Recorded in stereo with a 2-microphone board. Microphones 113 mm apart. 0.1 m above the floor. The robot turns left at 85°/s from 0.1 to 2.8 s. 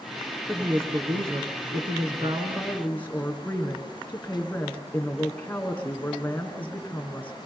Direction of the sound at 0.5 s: 5° left.